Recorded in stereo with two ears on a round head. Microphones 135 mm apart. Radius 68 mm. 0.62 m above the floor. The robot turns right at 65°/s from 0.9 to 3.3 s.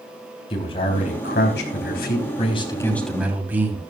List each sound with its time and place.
0.5 s a man speaking: 35° left, 3.5 m; by 3.8 s 170° right, 3.5 m